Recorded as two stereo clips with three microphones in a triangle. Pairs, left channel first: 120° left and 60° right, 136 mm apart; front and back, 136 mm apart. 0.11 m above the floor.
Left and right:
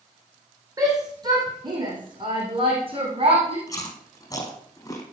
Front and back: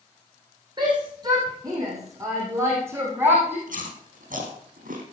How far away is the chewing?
About 4.5 m.